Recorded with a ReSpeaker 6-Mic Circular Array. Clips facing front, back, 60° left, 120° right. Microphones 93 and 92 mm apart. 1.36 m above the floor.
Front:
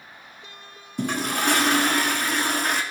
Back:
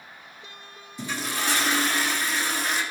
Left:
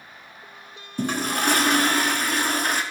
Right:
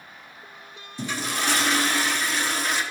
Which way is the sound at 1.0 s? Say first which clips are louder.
Front 6 dB, left 4 dB; 25° left.